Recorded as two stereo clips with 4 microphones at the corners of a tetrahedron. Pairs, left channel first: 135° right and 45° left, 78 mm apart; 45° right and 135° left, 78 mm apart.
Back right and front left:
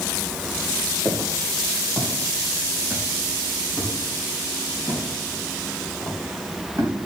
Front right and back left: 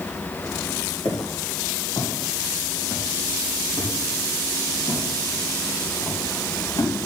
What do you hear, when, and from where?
1.1 s footsteps: 35° right, 6.5 m; by 6.9 s 15° right, 8 m